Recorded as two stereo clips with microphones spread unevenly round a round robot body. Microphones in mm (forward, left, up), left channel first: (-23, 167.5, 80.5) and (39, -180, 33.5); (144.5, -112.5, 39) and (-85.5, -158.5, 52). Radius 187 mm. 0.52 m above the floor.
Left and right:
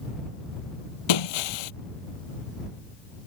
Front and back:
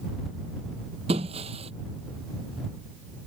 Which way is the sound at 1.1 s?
115° left.